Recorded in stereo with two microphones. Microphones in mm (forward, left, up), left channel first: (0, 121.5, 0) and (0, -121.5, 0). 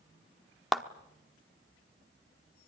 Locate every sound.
0.7 s a clap: centre (ahead or behind), 1.1 m